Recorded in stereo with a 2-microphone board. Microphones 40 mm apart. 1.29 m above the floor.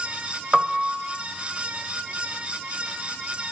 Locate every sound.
0.5 s a piano: 15° right (ahead or behind), 1.4 m